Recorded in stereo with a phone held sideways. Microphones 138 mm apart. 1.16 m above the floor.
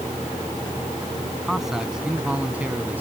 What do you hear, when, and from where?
1.4 s a man speaking: centre (ahead or behind); by 3.0 s 15° right (ahead or behind)